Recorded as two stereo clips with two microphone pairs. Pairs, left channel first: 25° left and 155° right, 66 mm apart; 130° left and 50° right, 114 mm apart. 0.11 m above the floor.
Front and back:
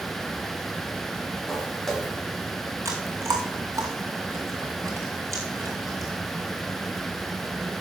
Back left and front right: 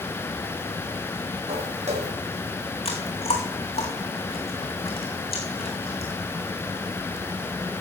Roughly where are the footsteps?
Ahead right.